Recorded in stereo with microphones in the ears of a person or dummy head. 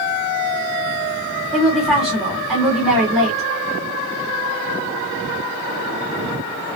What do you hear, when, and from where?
1.5 s a woman speaking: centre (ahead or behind), 1.7 m